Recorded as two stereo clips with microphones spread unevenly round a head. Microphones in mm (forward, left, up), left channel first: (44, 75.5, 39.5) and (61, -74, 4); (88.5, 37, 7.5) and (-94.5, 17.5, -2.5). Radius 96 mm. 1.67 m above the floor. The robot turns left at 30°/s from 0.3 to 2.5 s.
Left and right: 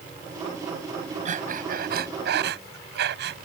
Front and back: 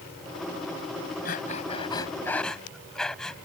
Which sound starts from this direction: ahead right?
Breathing, at 1.2 s.